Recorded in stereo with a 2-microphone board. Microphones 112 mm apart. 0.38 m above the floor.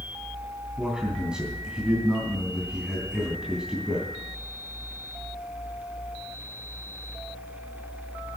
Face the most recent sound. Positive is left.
turn(degrees=-5)  # may be behind; listen again after turning